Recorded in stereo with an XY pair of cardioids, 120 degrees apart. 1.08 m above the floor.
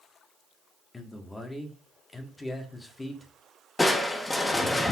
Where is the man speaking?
15° left, 1.7 m.